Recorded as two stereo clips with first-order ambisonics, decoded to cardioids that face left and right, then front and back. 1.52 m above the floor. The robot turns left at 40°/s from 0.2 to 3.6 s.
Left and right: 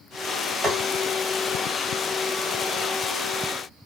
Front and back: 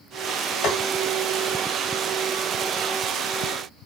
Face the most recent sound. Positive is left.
turn(degrees=-150)